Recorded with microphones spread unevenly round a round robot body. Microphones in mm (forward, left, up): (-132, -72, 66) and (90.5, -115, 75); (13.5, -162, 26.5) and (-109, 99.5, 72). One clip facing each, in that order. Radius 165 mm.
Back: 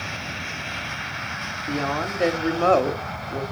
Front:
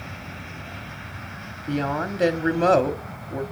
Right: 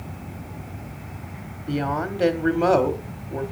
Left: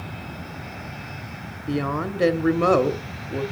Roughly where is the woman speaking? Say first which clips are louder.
Front 1 dB, left 1 dB; ahead left.